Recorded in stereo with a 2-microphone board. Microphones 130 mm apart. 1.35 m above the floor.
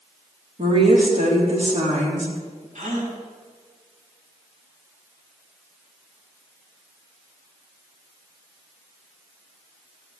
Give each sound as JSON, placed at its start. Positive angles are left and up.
{"t": 0.6, "sound": "a woman speaking", "side_deg": -50, "distance_m": 3.5}
{"t": 2.8, "sound": "a gasp", "side_deg": -65, "distance_m": 3.0}